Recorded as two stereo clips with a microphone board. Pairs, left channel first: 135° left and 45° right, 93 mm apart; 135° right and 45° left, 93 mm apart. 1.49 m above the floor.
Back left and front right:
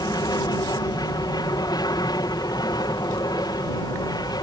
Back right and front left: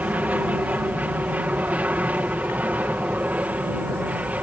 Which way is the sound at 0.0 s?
115° left.